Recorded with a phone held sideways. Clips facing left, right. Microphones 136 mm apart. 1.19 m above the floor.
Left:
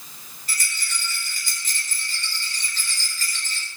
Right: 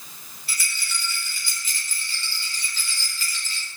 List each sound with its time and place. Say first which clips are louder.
0.5 s a rattle: left 1 dB; 45° left (ahead or behind), 5 m